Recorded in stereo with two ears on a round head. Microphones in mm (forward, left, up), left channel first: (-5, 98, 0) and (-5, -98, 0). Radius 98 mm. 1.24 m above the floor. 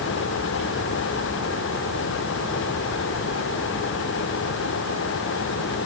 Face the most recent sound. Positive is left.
No sound to turn to.